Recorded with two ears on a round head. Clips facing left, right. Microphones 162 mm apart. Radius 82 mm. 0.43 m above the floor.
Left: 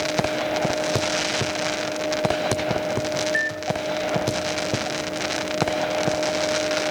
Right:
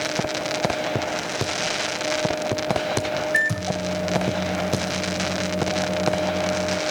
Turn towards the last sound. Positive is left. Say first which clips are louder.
# even
turn(degrees=-55)  # may be behind; listen again after turning